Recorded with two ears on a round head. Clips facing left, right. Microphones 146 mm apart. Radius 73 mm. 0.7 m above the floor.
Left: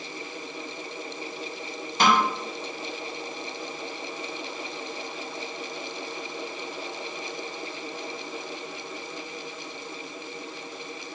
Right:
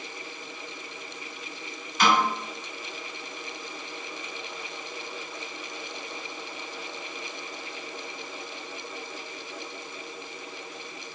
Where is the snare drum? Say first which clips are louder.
Left 1 dB; 30° left (ahead or behind), 1.9 m.